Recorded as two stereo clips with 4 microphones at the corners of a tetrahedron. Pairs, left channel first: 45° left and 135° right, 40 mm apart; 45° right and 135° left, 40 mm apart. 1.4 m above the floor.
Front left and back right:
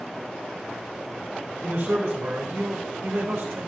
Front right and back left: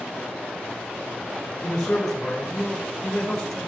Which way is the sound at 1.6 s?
125° right.